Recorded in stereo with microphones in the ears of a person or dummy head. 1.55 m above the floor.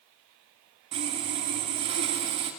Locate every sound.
0.9 s sawing: 35° right (ahead or behind), 2 m